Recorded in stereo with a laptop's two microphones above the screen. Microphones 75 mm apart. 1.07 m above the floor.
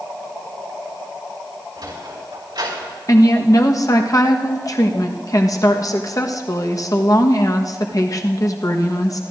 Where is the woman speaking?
50° left (ahead or behind), 1.1 m.